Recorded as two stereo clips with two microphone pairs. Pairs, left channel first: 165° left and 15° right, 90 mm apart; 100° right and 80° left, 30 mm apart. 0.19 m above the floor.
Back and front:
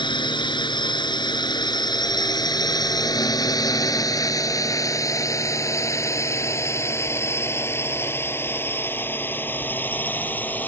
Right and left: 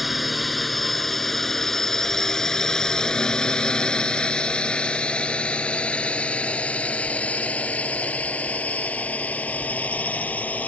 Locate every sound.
0.0 s a drone: 175° left; by 10.7 s 125° right